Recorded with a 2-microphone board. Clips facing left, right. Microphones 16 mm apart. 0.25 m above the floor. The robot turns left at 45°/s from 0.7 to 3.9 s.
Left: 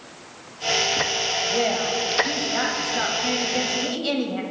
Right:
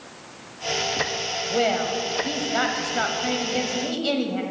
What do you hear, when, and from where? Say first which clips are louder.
1.5 s a woman speaking: even; 20° right (ahead or behind), 0.9 m; by 4.4 s centre (ahead or behind), 0.9 m